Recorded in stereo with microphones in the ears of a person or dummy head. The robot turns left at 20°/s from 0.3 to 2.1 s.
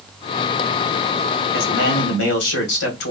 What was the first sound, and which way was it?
A man speaking, 60° left (ahead or behind).